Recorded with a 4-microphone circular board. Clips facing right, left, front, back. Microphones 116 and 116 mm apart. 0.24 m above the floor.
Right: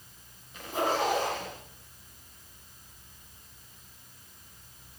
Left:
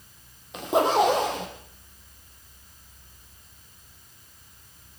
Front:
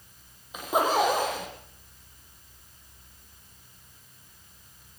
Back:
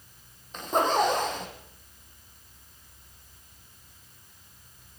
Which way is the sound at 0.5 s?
85° left.